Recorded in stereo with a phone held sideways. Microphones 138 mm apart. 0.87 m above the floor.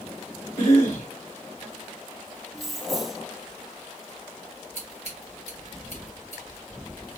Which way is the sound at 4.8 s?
50° left (ahead or behind).